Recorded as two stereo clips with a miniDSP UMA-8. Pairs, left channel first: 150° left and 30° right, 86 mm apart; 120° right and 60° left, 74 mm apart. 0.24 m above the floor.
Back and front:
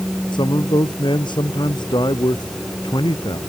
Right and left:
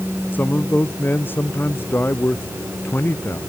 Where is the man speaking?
175° left; by 3.4 s straight behind.